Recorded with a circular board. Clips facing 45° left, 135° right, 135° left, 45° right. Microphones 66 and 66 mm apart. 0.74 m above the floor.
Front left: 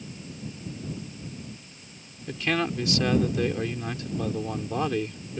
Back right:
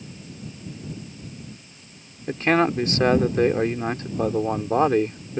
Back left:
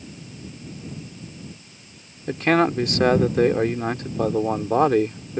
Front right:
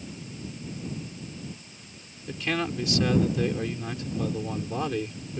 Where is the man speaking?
170° left.